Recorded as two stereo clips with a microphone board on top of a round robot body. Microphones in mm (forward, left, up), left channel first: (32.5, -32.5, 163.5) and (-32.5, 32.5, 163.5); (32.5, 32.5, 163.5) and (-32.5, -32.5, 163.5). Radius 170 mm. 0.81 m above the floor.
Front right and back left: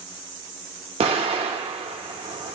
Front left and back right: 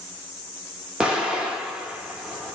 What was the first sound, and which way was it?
An explosion, 145° left.